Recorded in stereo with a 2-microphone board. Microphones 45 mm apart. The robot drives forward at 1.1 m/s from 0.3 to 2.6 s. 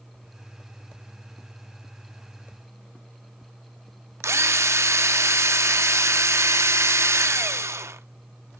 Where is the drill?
75° right (ahead or behind), 0.5 m.